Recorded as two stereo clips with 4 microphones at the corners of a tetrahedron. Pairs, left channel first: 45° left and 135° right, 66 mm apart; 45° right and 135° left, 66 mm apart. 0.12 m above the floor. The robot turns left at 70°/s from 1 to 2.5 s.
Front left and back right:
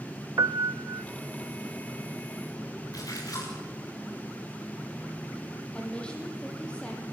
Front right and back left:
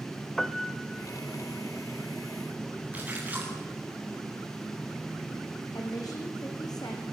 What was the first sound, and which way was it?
A piano, 130° right.